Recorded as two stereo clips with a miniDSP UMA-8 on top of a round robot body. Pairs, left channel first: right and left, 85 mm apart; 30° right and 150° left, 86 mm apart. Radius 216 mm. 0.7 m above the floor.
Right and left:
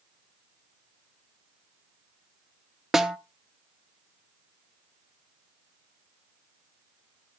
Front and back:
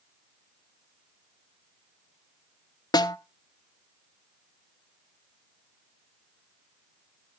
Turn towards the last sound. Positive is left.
turn(degrees=5)